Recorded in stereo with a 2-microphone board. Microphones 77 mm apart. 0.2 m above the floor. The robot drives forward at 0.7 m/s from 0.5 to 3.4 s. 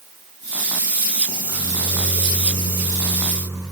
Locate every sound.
1.3 s a microwave: 45° right (ahead or behind), 9 m; by 3.6 s 40° right (ahead or behind), 10 m